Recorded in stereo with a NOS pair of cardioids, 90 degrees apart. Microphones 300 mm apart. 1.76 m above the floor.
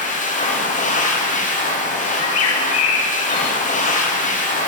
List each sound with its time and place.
0.0 s a machine running: 25° left, 1.1 m
2.1 s a bird: 55° left, 0.9 m